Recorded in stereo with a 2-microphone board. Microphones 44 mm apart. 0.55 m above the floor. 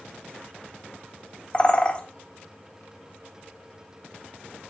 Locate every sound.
1.5 s a bird: 30° left (ahead or behind), 1.0 m